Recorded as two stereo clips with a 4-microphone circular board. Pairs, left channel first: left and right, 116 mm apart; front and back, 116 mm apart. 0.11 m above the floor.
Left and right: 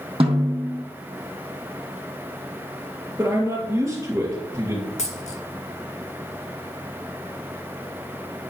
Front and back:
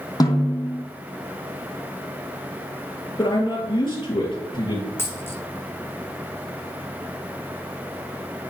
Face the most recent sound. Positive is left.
turn(degrees=70)